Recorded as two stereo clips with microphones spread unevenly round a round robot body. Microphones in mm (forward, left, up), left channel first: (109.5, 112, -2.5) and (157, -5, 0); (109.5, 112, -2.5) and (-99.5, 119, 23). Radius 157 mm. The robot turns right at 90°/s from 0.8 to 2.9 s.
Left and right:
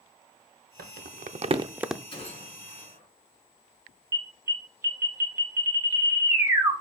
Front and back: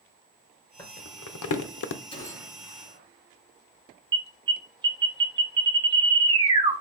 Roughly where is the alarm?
Behind right.